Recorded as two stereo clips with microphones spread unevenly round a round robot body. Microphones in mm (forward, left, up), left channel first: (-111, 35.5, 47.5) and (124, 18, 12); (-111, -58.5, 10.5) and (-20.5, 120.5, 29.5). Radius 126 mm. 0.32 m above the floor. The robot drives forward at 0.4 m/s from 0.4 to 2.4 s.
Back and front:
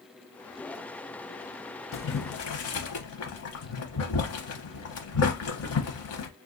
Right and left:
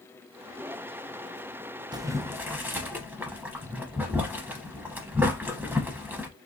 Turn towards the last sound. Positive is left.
turn(degrees=145)